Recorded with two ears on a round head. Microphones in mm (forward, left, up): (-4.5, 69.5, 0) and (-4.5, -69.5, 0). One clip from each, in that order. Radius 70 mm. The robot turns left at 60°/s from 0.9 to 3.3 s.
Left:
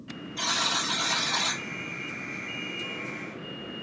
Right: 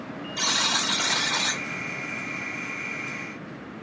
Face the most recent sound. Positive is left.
turn(degrees=95)